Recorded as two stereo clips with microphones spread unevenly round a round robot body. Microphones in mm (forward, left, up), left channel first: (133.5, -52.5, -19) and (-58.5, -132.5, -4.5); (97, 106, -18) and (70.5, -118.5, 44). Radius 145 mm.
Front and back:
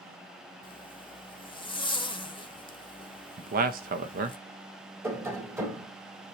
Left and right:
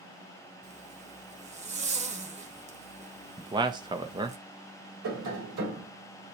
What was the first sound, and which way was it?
A zipper, 45° right.